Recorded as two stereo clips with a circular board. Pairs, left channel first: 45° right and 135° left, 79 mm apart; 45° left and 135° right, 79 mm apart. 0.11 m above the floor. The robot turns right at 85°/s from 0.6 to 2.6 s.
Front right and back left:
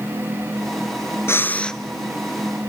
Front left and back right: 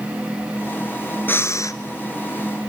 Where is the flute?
No flute in this recording.